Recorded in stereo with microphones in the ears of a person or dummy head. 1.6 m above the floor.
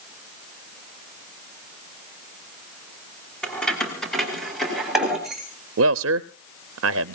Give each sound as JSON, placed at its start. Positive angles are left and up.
{"t": 3.4, "sound": "keys jangling", "side_deg": 5, "distance_m": 3.5}
{"t": 5.8, "sound": "a man speaking", "side_deg": -75, "distance_m": 0.6}